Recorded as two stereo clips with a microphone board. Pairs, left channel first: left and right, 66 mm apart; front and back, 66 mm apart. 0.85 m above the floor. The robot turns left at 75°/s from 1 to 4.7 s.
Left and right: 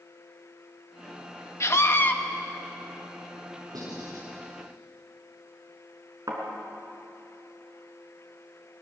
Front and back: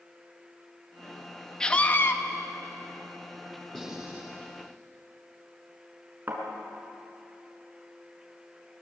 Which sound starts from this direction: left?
A scream, at 1.6 s.